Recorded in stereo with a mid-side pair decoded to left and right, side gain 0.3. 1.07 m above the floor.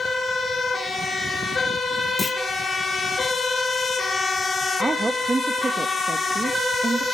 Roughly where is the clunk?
Ahead left.